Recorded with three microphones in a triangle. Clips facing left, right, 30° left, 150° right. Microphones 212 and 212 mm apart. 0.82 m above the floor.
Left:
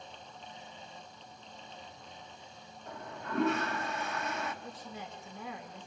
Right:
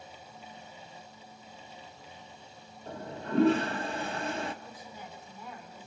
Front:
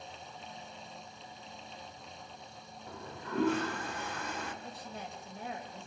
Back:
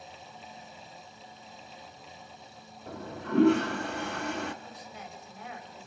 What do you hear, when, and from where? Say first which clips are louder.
2.9 s a toilet flushing: right 6 dB, back 8 dB; 150° right, 1.3 m
4.6 s a woman speaking: left 2 dB, front 1 dB; 85° left, 3.5 m